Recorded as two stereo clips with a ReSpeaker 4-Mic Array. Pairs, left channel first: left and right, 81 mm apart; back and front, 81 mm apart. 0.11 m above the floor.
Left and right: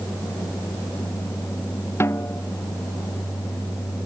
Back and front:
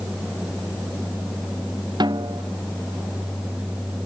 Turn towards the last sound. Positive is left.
turn(degrees=30)